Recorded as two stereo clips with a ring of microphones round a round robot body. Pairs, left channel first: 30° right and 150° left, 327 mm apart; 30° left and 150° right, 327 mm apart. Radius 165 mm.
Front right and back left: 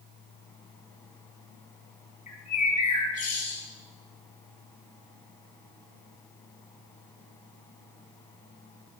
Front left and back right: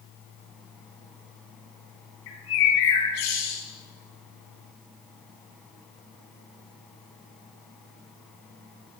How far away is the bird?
About 4 m.